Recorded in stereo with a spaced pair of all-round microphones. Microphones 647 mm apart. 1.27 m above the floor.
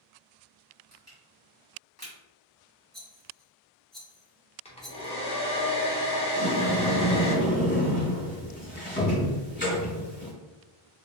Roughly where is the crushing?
Centre.